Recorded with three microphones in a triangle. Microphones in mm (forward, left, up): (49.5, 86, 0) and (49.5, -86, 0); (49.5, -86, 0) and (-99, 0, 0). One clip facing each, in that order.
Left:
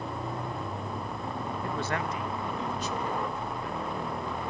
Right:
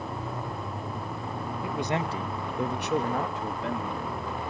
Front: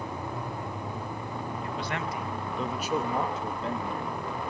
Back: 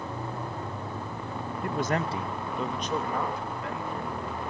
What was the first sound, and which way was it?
A man speaking, 175° right.